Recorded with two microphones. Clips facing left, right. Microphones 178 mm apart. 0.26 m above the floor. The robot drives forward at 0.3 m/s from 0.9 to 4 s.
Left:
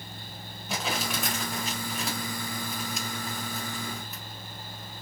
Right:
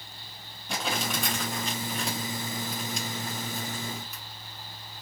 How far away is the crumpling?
About 1.2 m.